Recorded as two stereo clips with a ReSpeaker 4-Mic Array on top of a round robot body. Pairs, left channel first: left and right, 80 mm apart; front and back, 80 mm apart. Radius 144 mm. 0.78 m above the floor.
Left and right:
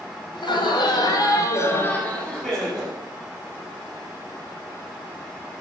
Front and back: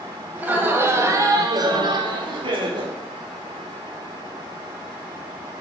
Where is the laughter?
105° left, 2.5 m; by 3.0 s 165° right, 2.0 m.